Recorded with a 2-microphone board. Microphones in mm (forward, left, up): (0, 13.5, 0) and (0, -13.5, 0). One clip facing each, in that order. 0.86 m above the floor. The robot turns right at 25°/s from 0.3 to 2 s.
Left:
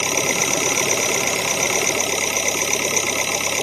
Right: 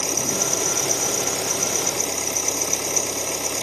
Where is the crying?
I don't hear crying.